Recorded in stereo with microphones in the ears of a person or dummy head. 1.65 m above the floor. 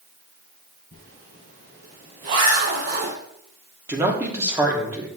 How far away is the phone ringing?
I don't hear a phone ringing.